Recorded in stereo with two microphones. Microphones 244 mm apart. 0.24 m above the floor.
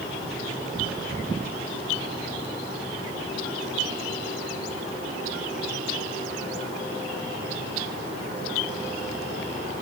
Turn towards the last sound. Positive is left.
No sound to turn to.